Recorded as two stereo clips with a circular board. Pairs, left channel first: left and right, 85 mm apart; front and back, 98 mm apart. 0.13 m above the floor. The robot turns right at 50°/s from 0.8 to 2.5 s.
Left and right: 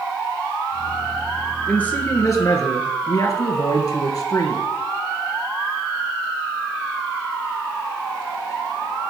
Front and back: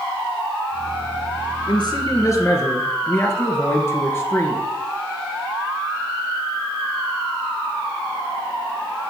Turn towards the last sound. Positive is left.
turn(degrees=60)